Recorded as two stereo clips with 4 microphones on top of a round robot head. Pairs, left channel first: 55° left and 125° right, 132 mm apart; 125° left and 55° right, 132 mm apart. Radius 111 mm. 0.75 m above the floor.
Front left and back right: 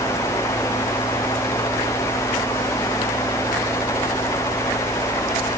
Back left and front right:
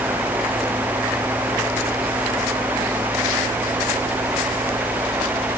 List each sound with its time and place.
Only background noise.